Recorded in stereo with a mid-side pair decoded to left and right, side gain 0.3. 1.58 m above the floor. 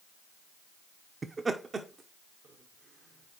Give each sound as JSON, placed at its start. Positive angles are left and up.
{"t": 1.2, "sound": "laughter", "azimuth_deg": -40, "distance_m": 0.7}